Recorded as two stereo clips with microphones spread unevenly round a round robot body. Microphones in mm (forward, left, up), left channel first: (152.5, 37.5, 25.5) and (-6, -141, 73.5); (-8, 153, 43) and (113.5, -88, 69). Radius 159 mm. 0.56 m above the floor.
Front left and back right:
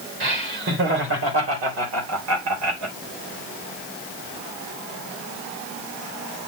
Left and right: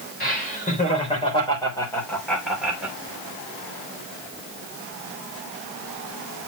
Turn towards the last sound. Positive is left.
turn(degrees=-145)